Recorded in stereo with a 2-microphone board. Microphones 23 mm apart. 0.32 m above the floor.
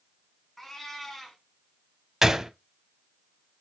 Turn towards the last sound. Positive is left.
turn(degrees=-15)  # may be behind; listen again after turning